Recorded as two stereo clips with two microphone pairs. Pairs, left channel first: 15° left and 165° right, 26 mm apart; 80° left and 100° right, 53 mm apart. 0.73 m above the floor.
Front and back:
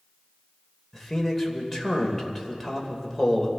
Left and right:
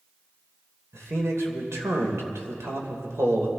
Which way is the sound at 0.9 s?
70° right.